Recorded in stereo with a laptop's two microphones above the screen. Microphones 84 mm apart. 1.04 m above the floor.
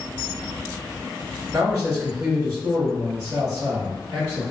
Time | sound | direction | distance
1.5 | a man speaking | 35° right (ahead or behind) | 1.4 m